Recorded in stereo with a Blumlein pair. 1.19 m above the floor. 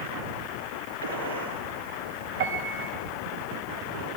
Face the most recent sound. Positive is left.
turn(degrees=-45)